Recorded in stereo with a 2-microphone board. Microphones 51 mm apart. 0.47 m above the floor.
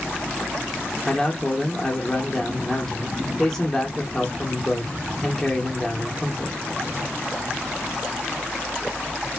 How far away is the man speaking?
About 1.0 m.